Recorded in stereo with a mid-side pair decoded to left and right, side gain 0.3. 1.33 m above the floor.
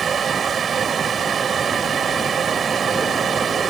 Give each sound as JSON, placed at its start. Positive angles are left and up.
{"t": 0.0, "sound": "a fan", "azimuth_deg": -65}